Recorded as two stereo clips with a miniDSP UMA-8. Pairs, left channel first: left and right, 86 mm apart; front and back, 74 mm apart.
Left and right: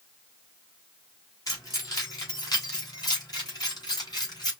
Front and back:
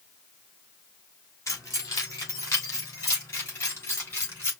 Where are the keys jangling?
45° left, 2.5 m; by 4.5 s 55° left, 4 m.